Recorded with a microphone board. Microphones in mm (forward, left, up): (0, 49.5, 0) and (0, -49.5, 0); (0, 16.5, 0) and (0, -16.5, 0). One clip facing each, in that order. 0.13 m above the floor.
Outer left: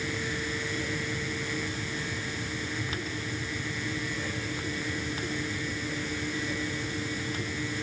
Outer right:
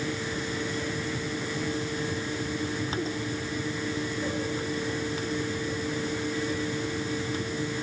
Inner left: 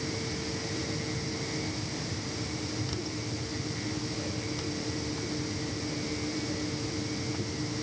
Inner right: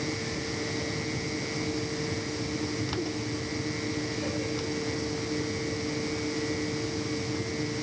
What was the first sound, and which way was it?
Only background noise.